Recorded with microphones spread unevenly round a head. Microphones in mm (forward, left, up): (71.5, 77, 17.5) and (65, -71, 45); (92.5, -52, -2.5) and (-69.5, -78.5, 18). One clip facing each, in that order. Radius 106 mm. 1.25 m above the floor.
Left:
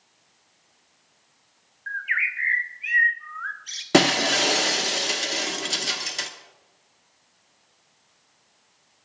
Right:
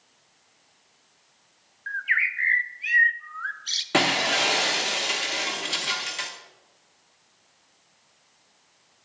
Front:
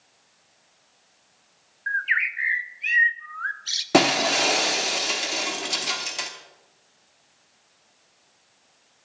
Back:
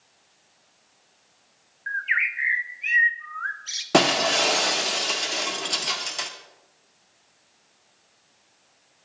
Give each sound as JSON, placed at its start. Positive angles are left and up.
{"t": 1.9, "sound": "a bird", "azimuth_deg": -45, "distance_m": 0.8}
{"t": 3.9, "sound": "breaking glass", "azimuth_deg": 105, "distance_m": 0.8}